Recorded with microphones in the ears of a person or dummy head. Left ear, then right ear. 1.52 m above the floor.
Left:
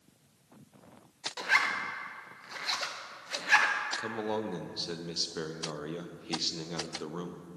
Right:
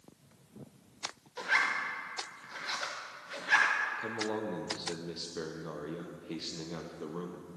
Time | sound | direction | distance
1.4 | a zipper | 15° left (ahead or behind) | 0.7 m
4.0 | a man speaking | 20° left (ahead or behind) | 0.7 m